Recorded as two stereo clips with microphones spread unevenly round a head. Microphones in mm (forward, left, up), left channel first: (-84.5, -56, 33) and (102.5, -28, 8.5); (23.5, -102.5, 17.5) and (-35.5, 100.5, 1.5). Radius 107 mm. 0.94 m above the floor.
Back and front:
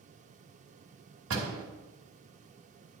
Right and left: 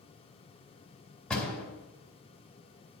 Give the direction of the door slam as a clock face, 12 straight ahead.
12 o'clock.